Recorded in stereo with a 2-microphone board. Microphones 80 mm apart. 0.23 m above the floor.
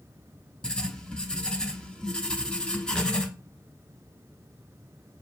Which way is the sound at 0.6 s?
10° left (ahead or behind).